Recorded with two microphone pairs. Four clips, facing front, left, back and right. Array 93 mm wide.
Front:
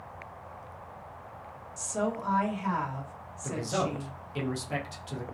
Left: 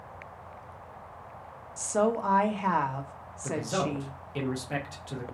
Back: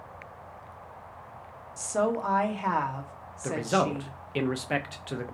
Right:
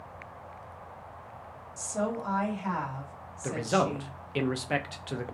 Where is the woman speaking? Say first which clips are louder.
Left 5 dB, back 5 dB; 125° left, 1.1 m.